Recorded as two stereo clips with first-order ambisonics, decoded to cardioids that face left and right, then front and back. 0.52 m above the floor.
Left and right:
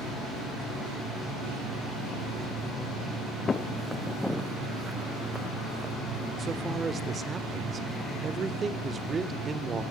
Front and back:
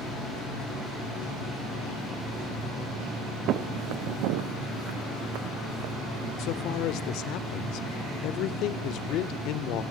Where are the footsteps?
155° left, 0.7 m; by 6.3 s 170° right, 2.5 m.